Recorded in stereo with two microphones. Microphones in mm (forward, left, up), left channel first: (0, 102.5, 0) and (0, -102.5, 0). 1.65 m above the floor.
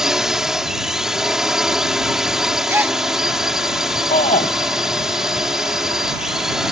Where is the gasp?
10° right (ahead or behind).